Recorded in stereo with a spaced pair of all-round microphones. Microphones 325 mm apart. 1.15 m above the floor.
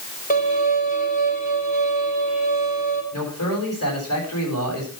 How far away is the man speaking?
About 8.5 m.